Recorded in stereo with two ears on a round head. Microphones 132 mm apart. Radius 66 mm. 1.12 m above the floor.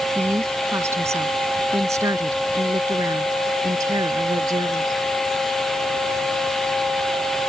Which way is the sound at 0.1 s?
15° right (ahead or behind).